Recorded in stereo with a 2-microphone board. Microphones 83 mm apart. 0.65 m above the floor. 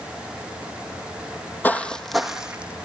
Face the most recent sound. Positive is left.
turn(degrees=-15)  # may be behind; listen again after turning